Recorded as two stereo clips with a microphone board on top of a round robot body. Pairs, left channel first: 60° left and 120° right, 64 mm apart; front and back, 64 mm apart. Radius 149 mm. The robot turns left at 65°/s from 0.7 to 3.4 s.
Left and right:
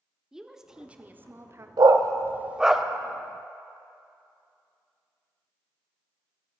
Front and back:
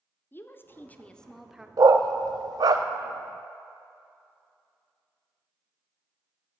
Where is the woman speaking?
40° right, 1.1 m; by 1.7 s 105° right, 1.1 m.